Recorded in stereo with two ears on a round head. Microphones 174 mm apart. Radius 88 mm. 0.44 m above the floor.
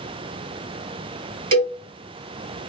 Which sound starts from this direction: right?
A cowbell, at 1.5 s.